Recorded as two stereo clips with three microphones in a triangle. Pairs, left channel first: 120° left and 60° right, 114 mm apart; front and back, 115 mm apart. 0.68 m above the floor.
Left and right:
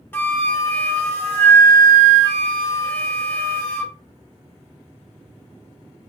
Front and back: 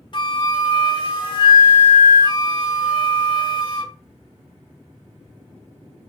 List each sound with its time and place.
0.1 s a flute: 50° left, 0.6 m